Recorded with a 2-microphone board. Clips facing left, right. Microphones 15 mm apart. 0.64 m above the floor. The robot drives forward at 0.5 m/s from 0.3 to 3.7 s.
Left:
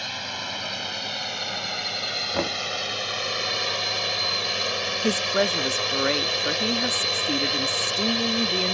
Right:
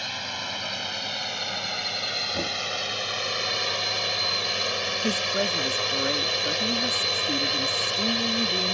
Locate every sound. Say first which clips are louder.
0.0 s a drone: even; 5° left (ahead or behind)
2.3 s knocking: left 2 dB; 40° left (ahead or behind)
5.0 s a woman speaking: left 4 dB; 25° left (ahead or behind)